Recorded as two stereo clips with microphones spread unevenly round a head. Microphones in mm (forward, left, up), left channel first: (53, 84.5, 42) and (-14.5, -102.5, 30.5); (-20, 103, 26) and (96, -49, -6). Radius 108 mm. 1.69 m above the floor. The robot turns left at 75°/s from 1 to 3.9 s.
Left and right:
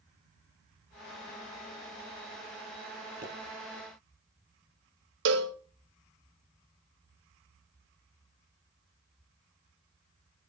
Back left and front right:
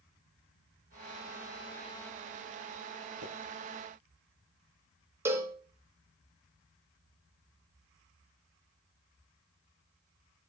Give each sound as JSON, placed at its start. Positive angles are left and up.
{"t": 3.2, "sound": "a pop", "azimuth_deg": -60, "distance_m": 6.0}
{"t": 5.2, "sound": "a cowbell", "azimuth_deg": -135, "distance_m": 0.8}